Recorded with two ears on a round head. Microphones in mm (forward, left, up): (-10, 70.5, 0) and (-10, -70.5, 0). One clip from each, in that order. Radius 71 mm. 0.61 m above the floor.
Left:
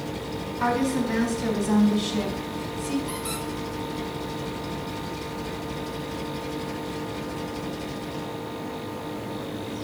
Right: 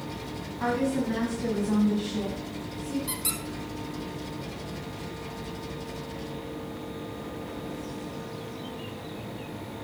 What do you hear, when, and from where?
0.6 s a woman speaking: 25° left (ahead or behind), 4.5 m; by 3.0 s 50° left (ahead or behind), 4 m
3.1 s a squeak: 65° right (ahead or behind), 2.5 m